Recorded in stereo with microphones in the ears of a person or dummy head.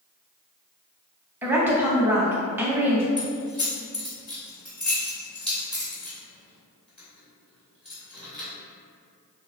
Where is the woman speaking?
10° right (ahead or behind), 0.8 m.